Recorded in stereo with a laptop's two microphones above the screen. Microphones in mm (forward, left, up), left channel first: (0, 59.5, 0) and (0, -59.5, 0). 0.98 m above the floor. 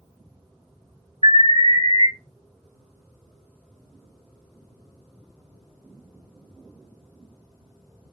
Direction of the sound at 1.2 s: 55° left (ahead or behind).